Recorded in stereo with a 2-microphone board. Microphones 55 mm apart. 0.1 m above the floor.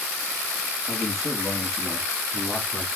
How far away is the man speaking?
About 5 m.